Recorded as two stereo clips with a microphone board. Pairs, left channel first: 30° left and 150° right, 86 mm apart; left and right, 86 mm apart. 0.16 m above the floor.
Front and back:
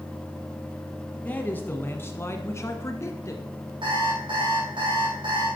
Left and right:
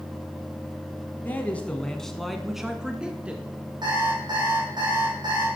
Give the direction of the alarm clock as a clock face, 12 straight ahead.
4 o'clock.